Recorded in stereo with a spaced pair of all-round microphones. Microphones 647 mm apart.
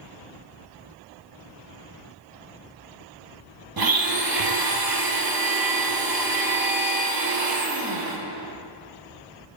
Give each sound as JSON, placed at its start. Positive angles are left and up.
{"t": 3.8, "sound": "a blender", "side_deg": -35, "distance_m": 0.6}